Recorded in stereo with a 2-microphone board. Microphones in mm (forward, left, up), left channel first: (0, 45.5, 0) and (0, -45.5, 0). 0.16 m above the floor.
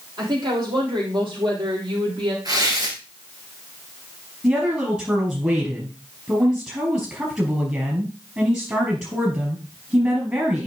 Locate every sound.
0.2 s a woman speaking: 55° right (ahead or behind), 5 m; by 2.4 s 65° right (ahead or behind), 6 m
2.5 s tearing paper: 45° right (ahead or behind), 3 m
4.4 s a woman speaking: 25° right (ahead or behind), 3.5 m